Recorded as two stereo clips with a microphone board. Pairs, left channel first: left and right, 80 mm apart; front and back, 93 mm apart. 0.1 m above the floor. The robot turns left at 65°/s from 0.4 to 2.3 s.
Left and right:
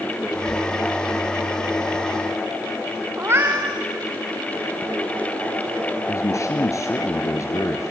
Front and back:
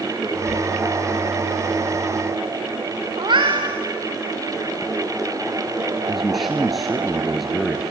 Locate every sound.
3.2 s a cat meowing: 150° right, 3 m
6.1 s a man speaking: 90° left, 1.5 m